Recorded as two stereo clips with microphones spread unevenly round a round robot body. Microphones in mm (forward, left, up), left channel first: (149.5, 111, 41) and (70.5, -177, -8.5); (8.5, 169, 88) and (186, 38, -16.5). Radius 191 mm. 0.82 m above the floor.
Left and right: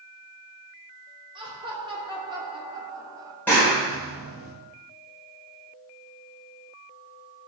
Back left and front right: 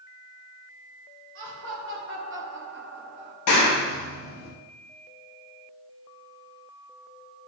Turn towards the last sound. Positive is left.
turn(degrees=160)